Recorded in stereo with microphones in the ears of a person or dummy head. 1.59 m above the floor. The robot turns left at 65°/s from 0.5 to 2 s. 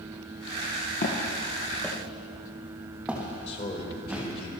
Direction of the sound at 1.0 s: 40° left (ahead or behind).